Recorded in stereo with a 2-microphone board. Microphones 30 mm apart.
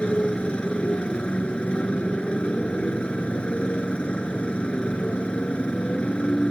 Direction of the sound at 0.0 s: 35° left (ahead or behind).